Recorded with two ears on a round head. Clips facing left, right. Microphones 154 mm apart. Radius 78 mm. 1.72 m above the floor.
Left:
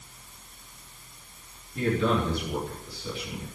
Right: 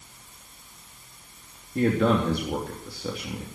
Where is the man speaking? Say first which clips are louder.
Right 4 dB; 45° right (ahead or behind), 3 m.